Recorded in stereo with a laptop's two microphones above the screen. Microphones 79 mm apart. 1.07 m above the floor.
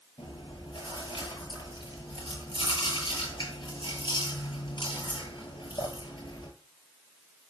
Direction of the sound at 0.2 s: 80° left.